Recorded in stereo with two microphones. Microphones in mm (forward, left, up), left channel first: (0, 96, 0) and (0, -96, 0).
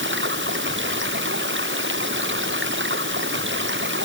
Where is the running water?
80° right.